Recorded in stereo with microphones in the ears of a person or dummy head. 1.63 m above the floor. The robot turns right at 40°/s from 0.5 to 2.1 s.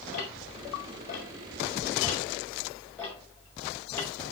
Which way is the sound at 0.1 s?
50° left (ahead or behind).